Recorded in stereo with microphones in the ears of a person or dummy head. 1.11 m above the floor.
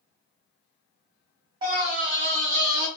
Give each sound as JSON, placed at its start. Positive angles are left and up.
{"t": 1.6, "sound": "a scream", "side_deg": -25, "distance_m": 1.1}